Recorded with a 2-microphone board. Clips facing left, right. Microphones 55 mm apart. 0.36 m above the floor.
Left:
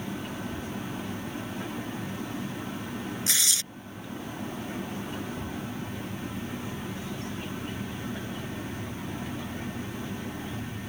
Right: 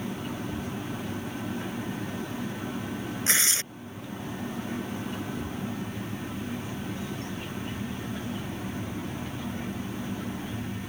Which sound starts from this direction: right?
Tearing paper, at 3.3 s.